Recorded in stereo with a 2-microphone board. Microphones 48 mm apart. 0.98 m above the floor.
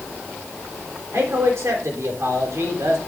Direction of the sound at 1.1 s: 65° right (ahead or behind).